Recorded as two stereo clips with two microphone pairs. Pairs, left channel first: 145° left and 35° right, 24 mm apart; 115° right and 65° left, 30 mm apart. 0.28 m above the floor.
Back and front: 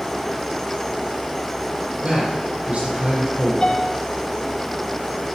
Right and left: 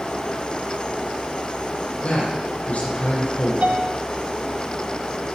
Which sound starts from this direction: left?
A piano, at 3.6 s.